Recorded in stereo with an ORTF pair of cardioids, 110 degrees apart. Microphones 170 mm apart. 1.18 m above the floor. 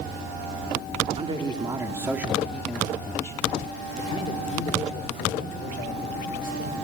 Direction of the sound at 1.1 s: 35° right.